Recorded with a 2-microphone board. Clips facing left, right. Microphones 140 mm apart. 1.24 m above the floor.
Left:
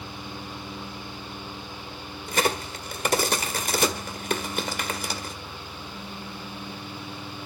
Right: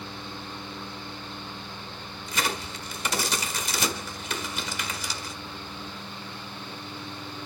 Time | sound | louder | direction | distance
2.3 | a crack | left 5 dB | 55° left (ahead or behind) | 1.8 m